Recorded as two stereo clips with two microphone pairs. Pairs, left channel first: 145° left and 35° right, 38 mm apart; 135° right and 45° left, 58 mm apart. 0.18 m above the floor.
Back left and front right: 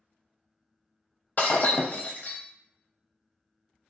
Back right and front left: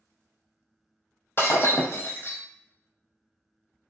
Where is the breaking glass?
175° right, 0.6 m.